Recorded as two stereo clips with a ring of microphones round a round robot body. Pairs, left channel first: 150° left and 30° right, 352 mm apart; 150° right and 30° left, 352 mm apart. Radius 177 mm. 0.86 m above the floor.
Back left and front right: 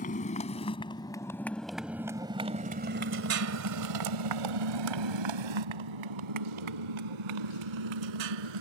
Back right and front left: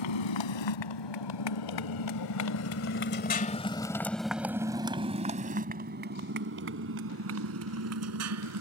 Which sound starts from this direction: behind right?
A motorcycle, at 0.0 s.